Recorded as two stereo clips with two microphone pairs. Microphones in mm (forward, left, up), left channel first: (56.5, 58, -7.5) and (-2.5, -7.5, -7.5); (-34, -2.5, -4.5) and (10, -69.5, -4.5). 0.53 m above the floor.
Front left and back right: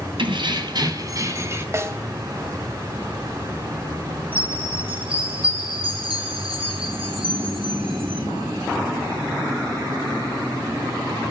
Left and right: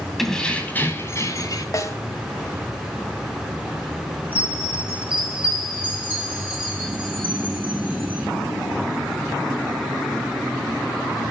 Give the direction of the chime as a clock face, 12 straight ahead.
4 o'clock.